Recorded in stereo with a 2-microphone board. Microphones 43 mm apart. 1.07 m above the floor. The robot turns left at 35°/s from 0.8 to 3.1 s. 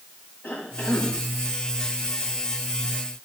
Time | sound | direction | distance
0.4 | a cough | 60° left (ahead or behind) | 3 m